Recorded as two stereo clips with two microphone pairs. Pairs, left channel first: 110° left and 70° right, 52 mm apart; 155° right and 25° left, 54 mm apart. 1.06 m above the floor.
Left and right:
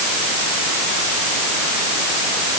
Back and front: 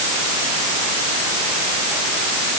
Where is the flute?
I don't hear a flute.